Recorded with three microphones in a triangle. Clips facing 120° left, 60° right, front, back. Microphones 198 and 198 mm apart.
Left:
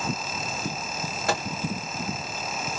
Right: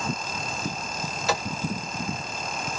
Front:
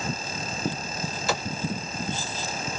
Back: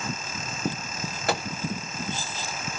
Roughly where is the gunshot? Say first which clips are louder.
Even, back 2 dB; behind left.